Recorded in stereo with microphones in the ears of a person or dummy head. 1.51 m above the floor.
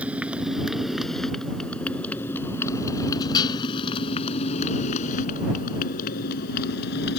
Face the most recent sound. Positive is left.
turn(degrees=60)  # may be behind; listen again after turning